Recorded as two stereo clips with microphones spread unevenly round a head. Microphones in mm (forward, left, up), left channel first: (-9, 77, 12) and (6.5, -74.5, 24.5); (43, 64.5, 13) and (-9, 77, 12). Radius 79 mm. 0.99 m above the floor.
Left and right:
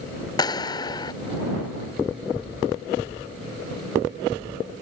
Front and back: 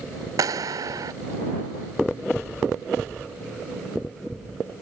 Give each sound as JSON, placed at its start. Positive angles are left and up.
{"t": 0.4, "sound": "a clap", "azimuth_deg": 160}